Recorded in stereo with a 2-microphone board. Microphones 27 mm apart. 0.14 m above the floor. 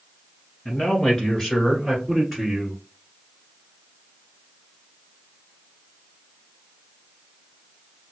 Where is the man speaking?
35° left (ahead or behind), 1.6 m; by 2.8 s 5° right (ahead or behind), 1.7 m.